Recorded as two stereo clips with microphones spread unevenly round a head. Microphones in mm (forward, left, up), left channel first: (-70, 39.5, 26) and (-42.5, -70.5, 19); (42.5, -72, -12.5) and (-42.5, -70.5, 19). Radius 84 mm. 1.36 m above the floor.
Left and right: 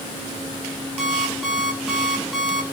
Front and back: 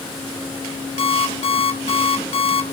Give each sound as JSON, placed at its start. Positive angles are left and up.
{"t": 1.0, "sound": "an alarm clock", "azimuth_deg": 15, "distance_m": 3.0}